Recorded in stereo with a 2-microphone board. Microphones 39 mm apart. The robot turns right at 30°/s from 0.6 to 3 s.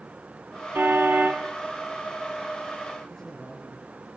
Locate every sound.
0.8 s a car horn: 75° right (ahead or behind), 4 m; by 1.4 s 55° right (ahead or behind), 4 m
3.1 s a man speaking: 20° left (ahead or behind), 5 m